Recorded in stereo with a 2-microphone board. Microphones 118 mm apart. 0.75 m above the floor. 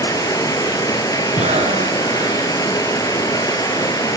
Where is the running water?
30° left (ahead or behind), 3 m.